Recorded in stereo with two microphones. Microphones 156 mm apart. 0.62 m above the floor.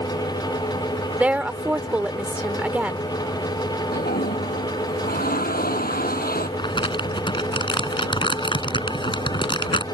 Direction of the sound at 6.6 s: 30° left (ahead or behind).